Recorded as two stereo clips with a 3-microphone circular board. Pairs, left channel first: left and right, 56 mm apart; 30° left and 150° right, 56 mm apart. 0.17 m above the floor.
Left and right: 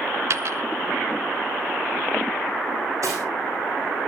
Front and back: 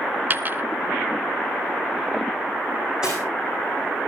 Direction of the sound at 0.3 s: 100° right.